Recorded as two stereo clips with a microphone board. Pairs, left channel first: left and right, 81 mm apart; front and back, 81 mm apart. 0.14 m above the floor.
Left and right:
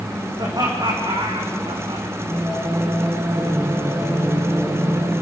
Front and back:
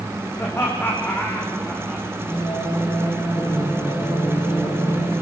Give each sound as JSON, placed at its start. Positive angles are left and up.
{"t": 0.4, "sound": "laughter", "azimuth_deg": -55, "distance_m": 7.5}
{"t": 2.2, "sound": "singing", "azimuth_deg": -10, "distance_m": 9.0}